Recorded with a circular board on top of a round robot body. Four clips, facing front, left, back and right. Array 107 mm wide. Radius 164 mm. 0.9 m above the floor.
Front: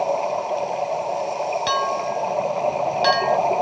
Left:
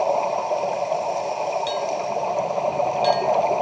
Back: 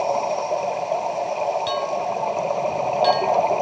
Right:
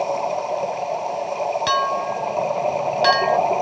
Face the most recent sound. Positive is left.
turn(degrees=-65)